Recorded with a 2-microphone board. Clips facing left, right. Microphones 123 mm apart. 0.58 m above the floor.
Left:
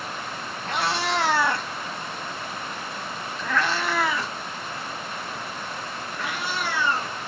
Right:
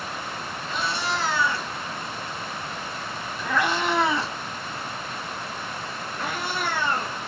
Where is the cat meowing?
80° left, 1.4 m; by 7.2 s 50° right (ahead or behind), 3 m.